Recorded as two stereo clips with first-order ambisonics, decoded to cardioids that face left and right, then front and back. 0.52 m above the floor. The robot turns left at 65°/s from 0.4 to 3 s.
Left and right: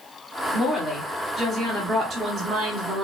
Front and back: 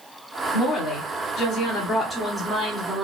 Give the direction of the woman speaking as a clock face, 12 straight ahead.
11 o'clock.